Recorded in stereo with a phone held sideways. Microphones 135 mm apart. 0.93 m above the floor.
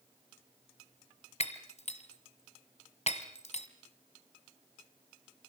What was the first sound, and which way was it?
Breaking glass, 50° left (ahead or behind).